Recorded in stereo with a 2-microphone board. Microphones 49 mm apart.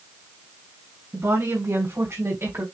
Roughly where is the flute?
I don't hear a flute.